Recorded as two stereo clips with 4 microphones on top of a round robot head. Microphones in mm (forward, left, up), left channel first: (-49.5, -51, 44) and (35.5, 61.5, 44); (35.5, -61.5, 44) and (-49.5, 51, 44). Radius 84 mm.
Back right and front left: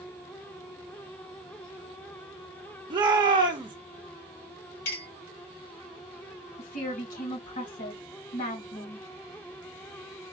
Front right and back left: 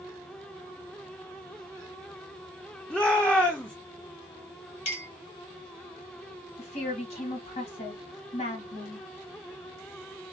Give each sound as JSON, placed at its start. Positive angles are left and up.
{"t": 2.9, "sound": "a shout", "azimuth_deg": 25, "distance_m": 0.7}
{"t": 4.8, "sound": "a clink", "azimuth_deg": -100, "distance_m": 1.6}
{"t": 6.6, "sound": "a woman speaking", "azimuth_deg": -100, "distance_m": 1.9}